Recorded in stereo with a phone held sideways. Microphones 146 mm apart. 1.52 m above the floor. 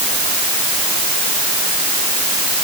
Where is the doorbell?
No doorbell in this recording.